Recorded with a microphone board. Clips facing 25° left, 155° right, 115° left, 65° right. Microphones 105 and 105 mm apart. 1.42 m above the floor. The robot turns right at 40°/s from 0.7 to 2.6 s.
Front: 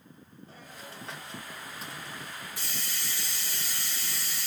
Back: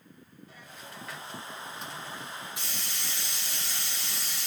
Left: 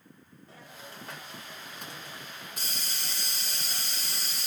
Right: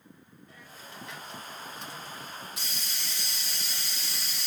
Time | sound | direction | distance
0.5 | a hiss | 65° left | 1.3 m